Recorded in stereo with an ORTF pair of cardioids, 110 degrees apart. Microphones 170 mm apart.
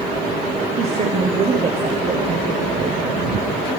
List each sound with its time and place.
0.8 s a woman speaking: 40° right, 1.4 m